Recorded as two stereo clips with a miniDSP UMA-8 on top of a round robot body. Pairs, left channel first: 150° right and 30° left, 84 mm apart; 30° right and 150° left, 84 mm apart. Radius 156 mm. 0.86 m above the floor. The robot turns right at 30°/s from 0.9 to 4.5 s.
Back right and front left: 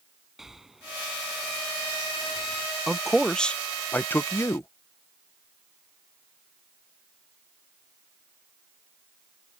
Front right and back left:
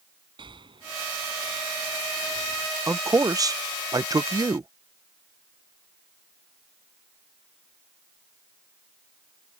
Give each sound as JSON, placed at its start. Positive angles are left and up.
{"t": 0.4, "sound": "breathing", "azimuth_deg": 115}
{"t": 2.9, "sound": "a man speaking", "azimuth_deg": 115}